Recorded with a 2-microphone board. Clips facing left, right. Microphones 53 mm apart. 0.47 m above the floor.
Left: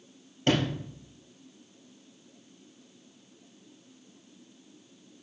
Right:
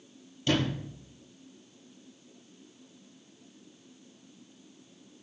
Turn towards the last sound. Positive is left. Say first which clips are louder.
# left 2 dB
turn(degrees=50)  # may be behind; listen again after turning